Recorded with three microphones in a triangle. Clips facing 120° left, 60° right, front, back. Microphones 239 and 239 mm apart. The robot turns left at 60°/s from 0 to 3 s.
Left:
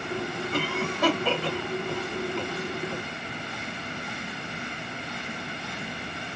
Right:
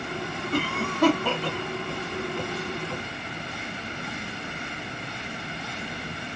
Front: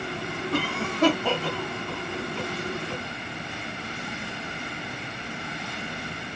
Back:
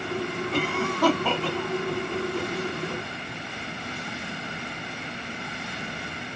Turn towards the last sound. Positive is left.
turn(degrees=180)